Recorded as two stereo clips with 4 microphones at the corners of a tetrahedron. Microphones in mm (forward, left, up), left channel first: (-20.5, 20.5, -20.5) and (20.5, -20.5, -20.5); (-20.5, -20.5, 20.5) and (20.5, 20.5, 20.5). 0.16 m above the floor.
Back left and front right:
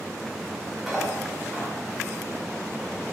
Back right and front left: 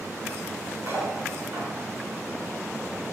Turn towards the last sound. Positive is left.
turn(degrees=40)